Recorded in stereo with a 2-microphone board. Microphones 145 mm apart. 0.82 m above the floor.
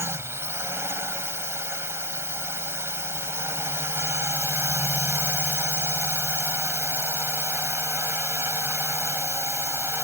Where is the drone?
15° right (ahead or behind).